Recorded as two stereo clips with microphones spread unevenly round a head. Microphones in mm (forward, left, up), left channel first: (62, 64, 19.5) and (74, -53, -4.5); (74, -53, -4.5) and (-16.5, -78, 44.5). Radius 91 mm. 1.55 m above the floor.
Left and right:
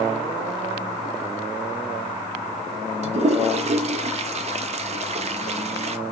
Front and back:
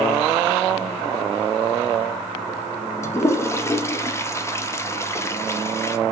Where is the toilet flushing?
50° right, 0.7 m.